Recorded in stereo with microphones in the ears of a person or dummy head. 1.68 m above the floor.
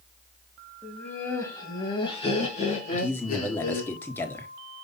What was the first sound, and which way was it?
Laughter, centre (ahead or behind).